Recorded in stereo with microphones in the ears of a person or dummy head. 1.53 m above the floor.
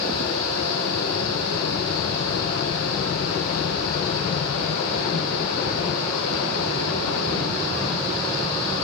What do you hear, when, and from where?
0.0 s a fan: 30° left (ahead or behind), 4 m